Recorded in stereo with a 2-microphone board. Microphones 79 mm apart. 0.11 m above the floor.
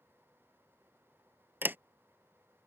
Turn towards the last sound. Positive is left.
turn(degrees=-25)  # may be behind; listen again after turning